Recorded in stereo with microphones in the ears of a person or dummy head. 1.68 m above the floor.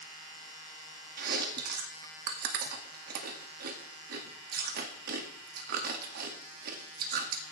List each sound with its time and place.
1.2 s chewing: 45° right (ahead or behind), 2.0 m